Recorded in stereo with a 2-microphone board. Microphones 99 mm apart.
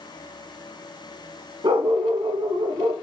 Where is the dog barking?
50° right (ahead or behind), 3.5 m.